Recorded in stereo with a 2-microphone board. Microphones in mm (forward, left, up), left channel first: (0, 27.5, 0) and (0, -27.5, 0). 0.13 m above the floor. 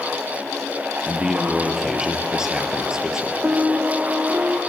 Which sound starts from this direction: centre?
A man speaking, at 1.1 s.